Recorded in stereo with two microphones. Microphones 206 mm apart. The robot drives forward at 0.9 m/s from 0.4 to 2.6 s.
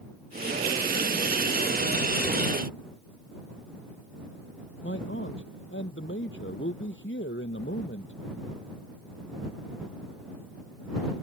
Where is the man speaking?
75° left (ahead or behind).